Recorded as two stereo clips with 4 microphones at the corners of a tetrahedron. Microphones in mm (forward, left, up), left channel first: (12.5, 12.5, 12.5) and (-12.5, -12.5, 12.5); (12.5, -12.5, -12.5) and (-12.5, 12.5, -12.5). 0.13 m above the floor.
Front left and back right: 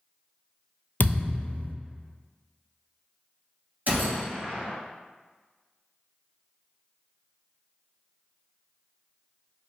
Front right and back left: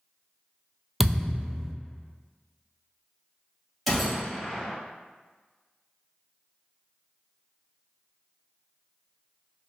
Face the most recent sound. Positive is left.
turn(degrees=-135)